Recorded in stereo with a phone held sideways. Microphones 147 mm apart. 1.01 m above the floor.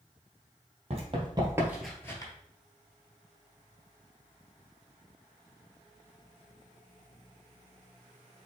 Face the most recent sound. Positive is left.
turn(degrees=30)  # may be behind; listen again after turning